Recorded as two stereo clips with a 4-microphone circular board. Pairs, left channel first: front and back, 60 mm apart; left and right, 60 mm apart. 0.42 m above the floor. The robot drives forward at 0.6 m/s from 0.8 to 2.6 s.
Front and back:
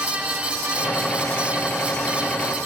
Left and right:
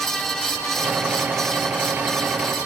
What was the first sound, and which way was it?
Only background noise.